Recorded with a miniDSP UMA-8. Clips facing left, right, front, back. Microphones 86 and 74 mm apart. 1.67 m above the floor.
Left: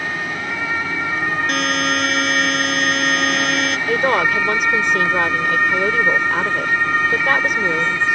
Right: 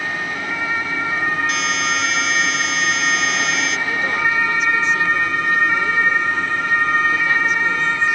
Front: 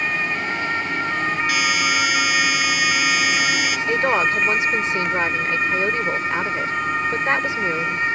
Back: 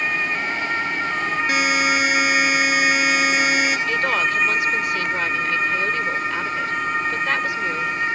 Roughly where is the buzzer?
Behind left.